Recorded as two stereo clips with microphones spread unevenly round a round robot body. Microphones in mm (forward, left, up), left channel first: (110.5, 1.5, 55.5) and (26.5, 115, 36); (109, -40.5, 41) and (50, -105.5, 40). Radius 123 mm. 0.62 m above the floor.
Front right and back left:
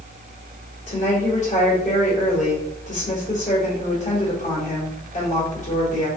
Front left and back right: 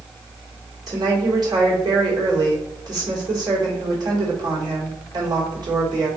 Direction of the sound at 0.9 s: 100° right.